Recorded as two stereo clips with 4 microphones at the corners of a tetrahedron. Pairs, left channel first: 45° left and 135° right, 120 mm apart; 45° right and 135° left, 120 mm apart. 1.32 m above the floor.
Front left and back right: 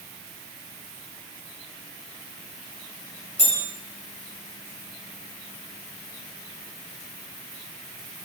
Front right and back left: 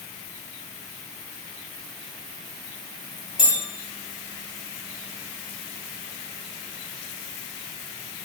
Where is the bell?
50° left, 2.5 m.